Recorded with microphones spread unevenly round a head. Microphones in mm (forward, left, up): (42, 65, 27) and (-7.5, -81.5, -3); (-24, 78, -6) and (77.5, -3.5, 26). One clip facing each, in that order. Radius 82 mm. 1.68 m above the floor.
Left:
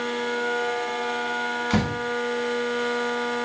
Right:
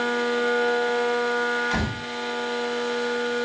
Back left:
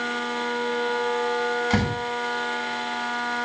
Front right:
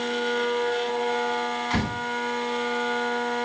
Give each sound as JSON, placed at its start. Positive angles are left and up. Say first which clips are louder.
{"t": 1.7, "sound": "a door slam", "louder": "left 4 dB, back left 2 dB", "azimuth_deg": 105, "distance_m": 9.5}